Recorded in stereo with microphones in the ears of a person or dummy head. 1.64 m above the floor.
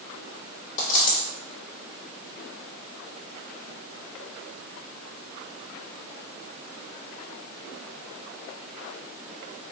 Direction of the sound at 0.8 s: 45° left (ahead or behind).